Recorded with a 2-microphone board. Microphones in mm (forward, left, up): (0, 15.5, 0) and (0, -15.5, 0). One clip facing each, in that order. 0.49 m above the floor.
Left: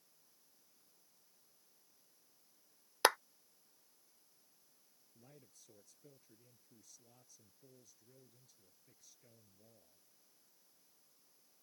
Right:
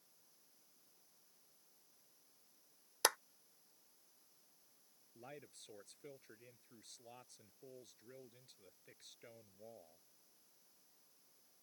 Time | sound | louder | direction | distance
3.0 | a clap | left 6 dB | 25° left (ahead or behind) | ?
5.2 | a man speaking | right 9 dB | 60° right (ahead or behind) | ?